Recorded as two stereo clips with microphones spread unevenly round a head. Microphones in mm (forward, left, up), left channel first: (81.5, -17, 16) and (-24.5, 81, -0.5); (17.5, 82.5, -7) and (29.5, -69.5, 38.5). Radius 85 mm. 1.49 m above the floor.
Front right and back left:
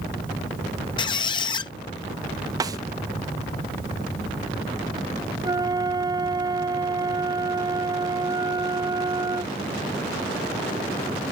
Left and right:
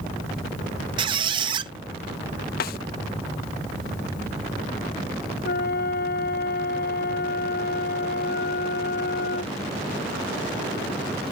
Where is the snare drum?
75° left.